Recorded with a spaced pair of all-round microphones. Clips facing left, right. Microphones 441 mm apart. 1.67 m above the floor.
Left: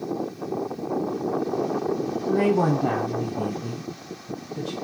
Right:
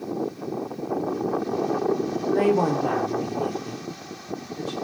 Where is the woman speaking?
15° left (ahead or behind), 0.9 m; by 4.8 s 80° left, 1.7 m.